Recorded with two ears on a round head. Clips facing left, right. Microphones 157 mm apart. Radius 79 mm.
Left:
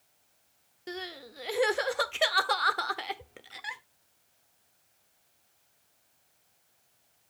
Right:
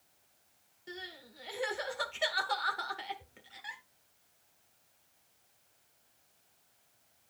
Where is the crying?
70° left (ahead or behind), 1.1 m.